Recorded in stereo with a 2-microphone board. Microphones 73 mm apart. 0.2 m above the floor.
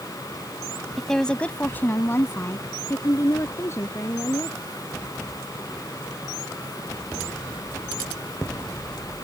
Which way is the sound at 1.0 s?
Centre (ahead or behind).